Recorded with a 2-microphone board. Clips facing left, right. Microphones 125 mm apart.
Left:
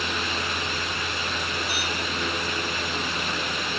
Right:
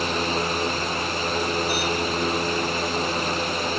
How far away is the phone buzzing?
No phone buzzing in this recording.